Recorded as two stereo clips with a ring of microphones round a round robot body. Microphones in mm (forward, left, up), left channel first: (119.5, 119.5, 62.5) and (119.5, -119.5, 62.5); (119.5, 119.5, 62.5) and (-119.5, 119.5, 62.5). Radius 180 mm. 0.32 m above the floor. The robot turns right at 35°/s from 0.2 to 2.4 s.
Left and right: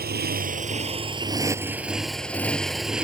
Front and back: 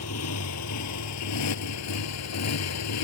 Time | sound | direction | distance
0.0 | a motorcycle | 40° right | ?